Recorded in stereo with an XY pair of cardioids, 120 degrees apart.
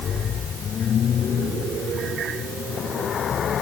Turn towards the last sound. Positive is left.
No sound to turn to.